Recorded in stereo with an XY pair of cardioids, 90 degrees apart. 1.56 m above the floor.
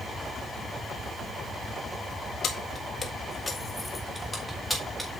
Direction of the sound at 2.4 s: 65° left.